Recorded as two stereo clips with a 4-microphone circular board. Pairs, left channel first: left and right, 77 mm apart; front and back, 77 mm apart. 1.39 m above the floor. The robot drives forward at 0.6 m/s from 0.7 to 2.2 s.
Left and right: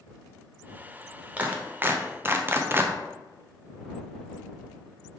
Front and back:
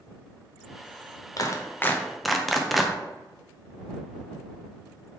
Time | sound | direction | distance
1.4 | a clap | 25° right | 0.7 m